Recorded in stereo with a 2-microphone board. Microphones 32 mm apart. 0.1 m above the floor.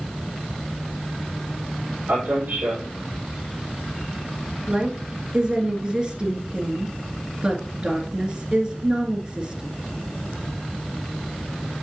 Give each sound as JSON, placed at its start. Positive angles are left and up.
{"t": 2.1, "sound": "a man speaking", "side_deg": -55, "distance_m": 4.5}
{"t": 4.7, "sound": "a woman speaking", "side_deg": -25, "distance_m": 1.8}